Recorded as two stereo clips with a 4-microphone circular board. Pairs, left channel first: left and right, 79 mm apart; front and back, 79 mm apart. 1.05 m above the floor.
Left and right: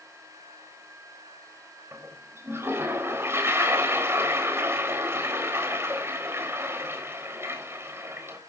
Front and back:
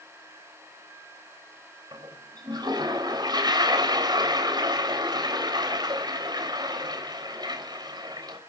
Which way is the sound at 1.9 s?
150° right.